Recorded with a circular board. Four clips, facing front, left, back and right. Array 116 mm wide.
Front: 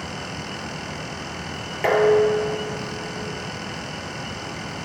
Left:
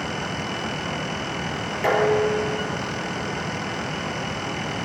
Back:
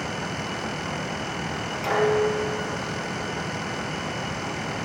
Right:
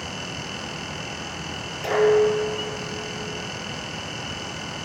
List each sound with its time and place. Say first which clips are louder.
1.8 s dishes clattering: right 2 dB, front 5 dB; 30° left, 6.5 m